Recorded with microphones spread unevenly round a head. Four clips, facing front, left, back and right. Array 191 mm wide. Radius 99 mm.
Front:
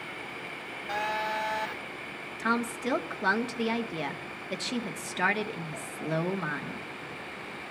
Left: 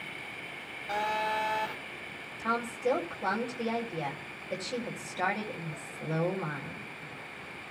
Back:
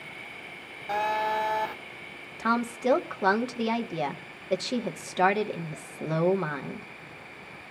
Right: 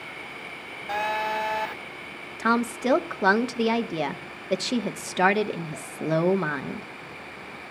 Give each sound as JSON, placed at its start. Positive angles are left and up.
{"t": 0.9, "sound": "a phone buzzing", "azimuth_deg": -155, "distance_m": 1.4}
{"t": 2.4, "sound": "a woman speaking", "azimuth_deg": -85, "distance_m": 1.3}